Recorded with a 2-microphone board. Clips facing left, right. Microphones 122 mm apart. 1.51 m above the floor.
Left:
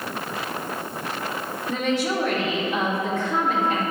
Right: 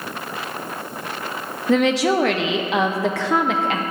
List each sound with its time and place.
1.7 s a woman speaking: 70° right (ahead or behind), 0.6 m